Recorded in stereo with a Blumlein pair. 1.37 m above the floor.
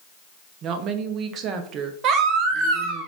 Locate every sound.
0.6 s a woman speaking: 30° right, 0.6 m
2.0 s a baby crying: 35° right, 0.7 m